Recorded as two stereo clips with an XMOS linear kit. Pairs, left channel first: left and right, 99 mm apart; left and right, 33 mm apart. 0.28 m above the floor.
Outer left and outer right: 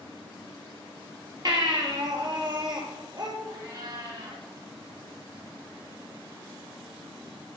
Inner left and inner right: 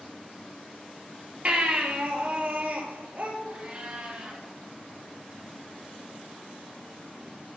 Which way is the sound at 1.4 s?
45° right (ahead or behind).